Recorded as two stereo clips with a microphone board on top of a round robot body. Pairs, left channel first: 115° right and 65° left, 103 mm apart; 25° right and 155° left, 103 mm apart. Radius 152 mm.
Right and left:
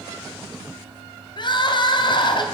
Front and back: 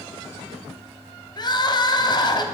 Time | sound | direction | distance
1.4 | crying | 70° right | 0.9 m